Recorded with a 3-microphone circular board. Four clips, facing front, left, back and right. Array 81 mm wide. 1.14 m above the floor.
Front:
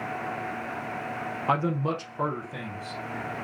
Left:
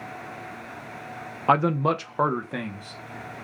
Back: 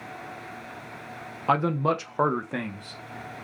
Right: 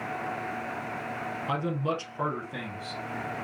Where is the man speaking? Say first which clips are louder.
Left 10 dB, back 3 dB; 95° left, 0.6 m; by 3.0 s 155° left, 1.0 m.